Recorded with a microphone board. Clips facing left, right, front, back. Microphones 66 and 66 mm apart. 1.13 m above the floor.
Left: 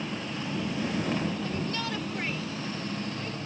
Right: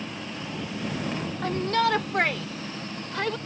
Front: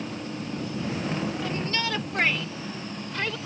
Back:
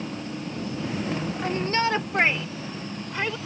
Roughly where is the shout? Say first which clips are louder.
Right 8 dB, back 5 dB; behind right.